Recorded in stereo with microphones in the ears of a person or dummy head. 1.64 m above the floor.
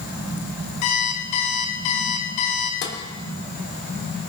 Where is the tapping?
65° left (ahead or behind), 3 m.